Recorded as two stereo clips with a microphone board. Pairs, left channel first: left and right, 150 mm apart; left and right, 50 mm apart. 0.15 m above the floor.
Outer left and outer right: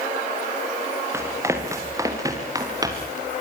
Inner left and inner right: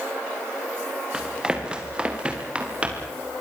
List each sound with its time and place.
1.1 s running footsteps: 20° right (ahead or behind), 4.5 m; by 3.2 s 25° right (ahead or behind), 6 m